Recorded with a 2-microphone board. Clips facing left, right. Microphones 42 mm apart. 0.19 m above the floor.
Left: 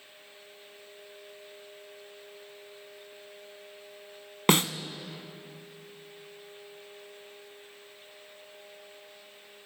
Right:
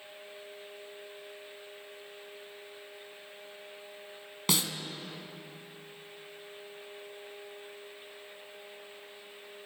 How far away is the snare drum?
About 0.6 m.